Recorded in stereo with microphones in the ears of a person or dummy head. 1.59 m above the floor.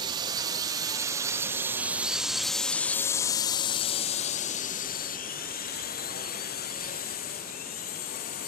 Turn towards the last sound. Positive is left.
turn(degrees=45)  # may be behind; listen again after turning